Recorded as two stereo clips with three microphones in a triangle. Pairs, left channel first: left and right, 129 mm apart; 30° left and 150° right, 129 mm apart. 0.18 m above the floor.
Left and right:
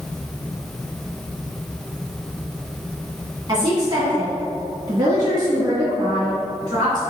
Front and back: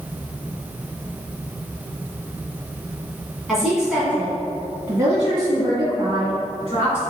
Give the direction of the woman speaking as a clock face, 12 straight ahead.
2 o'clock.